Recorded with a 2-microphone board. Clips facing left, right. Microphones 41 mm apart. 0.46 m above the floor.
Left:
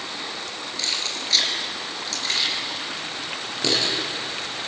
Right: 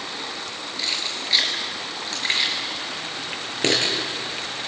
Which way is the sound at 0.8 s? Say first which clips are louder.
Right 1 dB; 10° right (ahead or behind).